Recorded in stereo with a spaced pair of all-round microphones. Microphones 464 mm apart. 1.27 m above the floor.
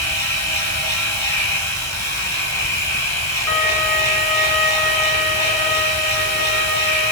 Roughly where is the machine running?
Left.